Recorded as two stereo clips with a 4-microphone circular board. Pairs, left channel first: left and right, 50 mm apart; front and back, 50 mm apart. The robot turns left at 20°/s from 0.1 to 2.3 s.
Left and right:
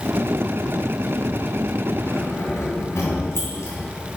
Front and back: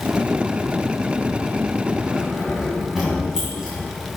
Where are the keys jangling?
110° left, 2.5 m; by 3.8 s 105° left, 2.5 m.